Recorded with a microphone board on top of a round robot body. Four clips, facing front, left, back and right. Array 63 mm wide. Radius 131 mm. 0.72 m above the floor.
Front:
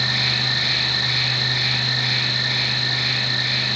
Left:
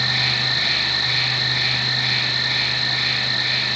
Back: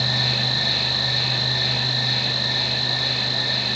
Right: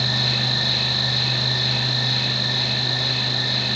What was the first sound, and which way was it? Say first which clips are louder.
An insect: left 2 dB, front 1 dB; 50° left.